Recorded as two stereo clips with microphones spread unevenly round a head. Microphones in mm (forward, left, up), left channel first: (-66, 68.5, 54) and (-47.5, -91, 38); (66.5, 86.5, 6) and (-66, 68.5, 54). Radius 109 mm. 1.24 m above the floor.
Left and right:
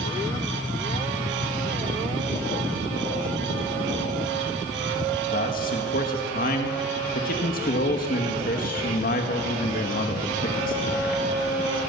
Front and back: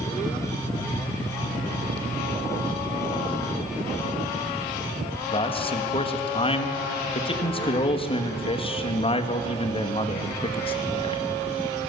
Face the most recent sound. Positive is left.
turn(degrees=50)